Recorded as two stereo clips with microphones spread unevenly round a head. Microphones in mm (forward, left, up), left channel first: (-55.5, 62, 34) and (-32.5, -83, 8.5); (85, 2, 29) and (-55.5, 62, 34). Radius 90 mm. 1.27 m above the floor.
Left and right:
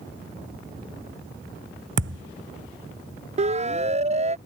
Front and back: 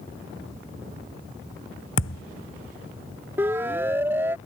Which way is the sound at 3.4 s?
125° right.